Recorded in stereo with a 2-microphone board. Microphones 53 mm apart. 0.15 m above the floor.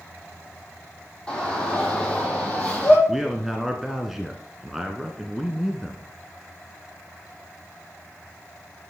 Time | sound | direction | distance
1.3 | a shout | 20° left (ahead or behind) | 7.5 m
3.1 | a man speaking | 5° right (ahead or behind) | 1.3 m